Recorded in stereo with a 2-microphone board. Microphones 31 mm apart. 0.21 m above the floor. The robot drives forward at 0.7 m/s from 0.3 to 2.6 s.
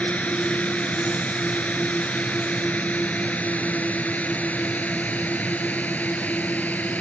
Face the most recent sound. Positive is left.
turn(degrees=70)  # may be behind; listen again after turning